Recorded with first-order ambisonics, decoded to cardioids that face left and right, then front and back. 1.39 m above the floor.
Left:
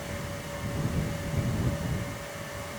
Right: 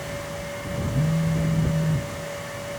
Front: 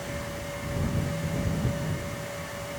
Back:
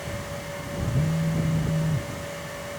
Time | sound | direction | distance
0.9 | a phone buzzing | 125° right | ?